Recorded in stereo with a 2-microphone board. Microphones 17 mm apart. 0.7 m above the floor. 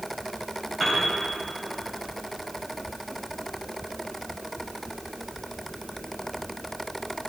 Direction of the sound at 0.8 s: 10° right (ahead or behind).